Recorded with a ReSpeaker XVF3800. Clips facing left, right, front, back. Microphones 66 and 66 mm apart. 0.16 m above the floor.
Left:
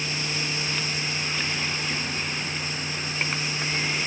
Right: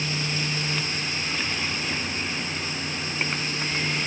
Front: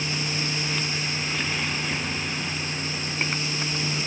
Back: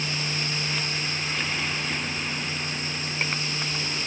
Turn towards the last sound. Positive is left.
No sound to turn to.